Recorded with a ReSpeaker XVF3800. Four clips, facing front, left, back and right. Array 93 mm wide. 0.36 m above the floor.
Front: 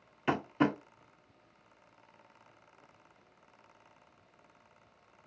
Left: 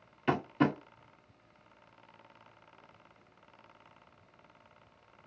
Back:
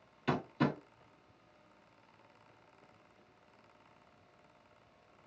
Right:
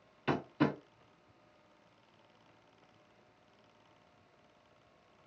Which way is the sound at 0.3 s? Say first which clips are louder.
Left 3 dB, front 4 dB; 30° left.